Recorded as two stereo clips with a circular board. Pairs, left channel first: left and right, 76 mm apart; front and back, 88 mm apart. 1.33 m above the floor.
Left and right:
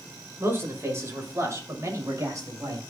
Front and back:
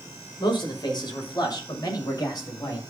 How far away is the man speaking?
About 6 m.